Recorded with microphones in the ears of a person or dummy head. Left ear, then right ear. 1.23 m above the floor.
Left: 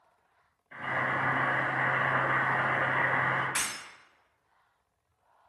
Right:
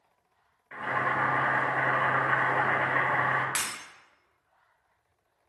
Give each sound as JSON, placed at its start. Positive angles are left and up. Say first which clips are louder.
{"t": 0.7, "sound": "boiling", "louder": "right 2 dB", "side_deg": -45, "distance_m": 1.3}
{"t": 3.5, "sound": "breaking glass", "louder": "even", "side_deg": -35, "distance_m": 0.9}